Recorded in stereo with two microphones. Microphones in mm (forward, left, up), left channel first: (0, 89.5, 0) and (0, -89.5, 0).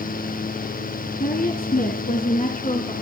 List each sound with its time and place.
1.2 s a woman speaking: 55° left (ahead or behind), 2 m; by 2.9 s 40° left (ahead or behind), 2 m